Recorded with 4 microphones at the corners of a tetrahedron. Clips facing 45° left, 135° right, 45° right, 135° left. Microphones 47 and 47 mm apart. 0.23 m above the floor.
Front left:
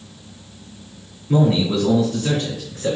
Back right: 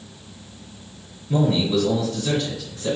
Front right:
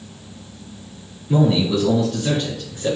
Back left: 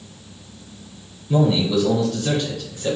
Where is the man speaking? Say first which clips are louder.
Front left 2 dB, front right 1 dB; 15° left, 2 m; by 3.0 s 25° left, 3 m.